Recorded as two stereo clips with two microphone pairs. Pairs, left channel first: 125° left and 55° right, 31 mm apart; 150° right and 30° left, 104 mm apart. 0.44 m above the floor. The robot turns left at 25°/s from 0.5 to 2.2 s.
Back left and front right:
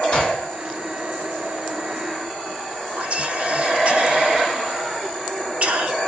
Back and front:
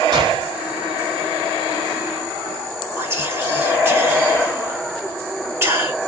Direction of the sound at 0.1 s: 65° left.